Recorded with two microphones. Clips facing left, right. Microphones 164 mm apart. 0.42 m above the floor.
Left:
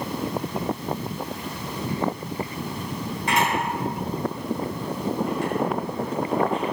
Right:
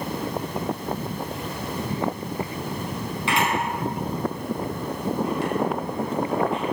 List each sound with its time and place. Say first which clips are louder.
3.3 s a camera shutter: left 1 dB; 40° left (ahead or behind), 4.5 m